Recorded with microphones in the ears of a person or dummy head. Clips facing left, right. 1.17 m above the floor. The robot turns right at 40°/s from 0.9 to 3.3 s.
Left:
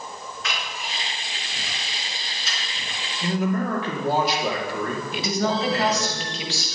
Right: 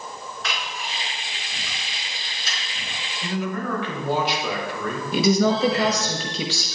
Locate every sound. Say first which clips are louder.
0.4 s a camera shutter: right 1 dB; 60° right (ahead or behind), 3.5 m; by 3.0 s 30° right (ahead or behind), 3.5 m
3.2 s a man speaking: left 3 dB; 40° left (ahead or behind), 2.5 m
5.1 s a woman speaking: right 7 dB; 85° right, 1.3 m